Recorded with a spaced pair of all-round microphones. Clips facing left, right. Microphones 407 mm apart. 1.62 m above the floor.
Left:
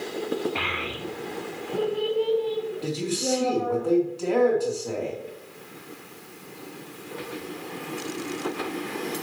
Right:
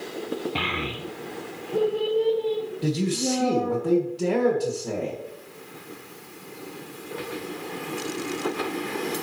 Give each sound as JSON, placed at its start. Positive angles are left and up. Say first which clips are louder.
{"t": 0.6, "sound": "a child speaking", "louder": "right 2 dB", "side_deg": -50, "distance_m": 0.7}
{"t": 2.8, "sound": "a man speaking", "louder": "right 3 dB", "side_deg": -80, "distance_m": 1.6}